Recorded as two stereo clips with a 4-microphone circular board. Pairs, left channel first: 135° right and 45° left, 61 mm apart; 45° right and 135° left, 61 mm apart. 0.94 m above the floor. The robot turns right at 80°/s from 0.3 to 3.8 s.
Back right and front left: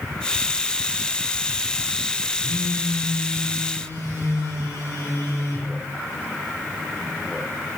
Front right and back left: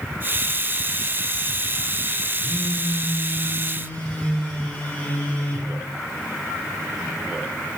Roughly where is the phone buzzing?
Behind left.